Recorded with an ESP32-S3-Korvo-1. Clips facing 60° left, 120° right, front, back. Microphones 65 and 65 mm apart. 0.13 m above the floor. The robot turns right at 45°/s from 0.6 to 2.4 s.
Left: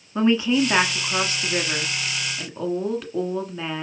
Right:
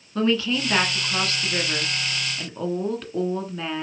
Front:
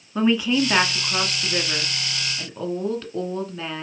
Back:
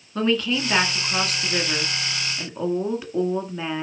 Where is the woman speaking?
60° left, 1.7 m; by 3.8 s 140° left, 1.7 m.